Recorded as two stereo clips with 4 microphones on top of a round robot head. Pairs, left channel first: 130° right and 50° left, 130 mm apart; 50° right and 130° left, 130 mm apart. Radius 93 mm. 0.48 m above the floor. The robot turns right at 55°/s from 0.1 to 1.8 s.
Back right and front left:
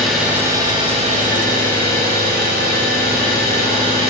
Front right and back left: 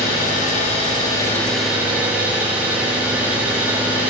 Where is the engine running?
40° right, 2.5 m; by 4.1 s 50° left, 2.5 m.